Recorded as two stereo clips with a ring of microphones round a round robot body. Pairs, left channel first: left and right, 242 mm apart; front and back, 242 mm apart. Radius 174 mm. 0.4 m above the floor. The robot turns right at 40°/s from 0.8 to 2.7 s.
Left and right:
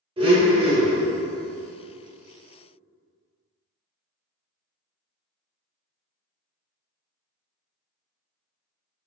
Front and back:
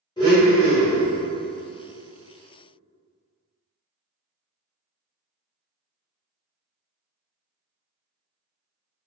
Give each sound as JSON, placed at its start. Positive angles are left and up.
{"t": 0.2, "sound": "a blender", "azimuth_deg": -50, "distance_m": 1.0}